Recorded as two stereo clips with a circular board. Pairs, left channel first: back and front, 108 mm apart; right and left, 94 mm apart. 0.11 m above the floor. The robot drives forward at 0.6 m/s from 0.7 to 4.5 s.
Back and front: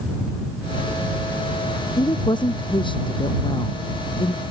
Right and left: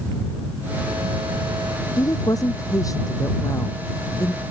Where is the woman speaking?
135° right; by 4.4 s 145° right.